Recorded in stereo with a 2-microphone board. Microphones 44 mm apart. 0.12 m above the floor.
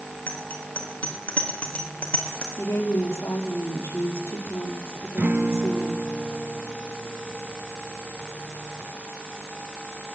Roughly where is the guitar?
Right.